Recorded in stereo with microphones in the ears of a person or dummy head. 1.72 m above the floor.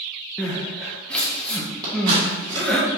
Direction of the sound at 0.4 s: 5° left (ahead or behind).